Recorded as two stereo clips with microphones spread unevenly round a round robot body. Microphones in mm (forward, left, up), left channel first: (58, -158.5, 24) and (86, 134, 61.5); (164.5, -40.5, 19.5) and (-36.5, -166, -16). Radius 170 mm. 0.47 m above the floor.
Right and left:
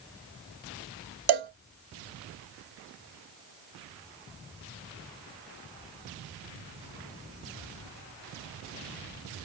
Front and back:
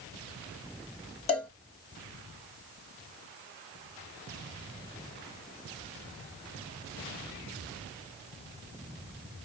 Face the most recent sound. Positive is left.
turn(degrees=105)